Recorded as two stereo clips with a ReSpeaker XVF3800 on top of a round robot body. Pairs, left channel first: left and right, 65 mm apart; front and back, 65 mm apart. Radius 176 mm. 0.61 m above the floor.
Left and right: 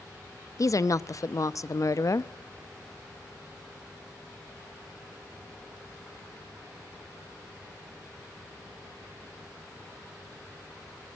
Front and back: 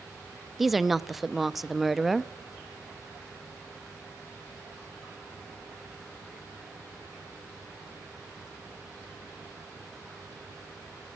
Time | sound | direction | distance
0.6 | a woman speaking | 95° left | 1.0 m